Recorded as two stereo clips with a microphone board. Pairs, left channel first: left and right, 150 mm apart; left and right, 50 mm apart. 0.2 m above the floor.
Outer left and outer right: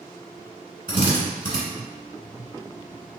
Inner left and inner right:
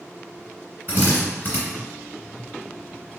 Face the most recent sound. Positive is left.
turn(degrees=30)  # may be behind; listen again after turning